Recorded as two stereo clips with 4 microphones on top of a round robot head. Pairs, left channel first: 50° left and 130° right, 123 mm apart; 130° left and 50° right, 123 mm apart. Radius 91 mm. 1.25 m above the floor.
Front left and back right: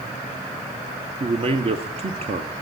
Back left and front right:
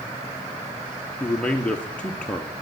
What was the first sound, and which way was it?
A man speaking, 150° right.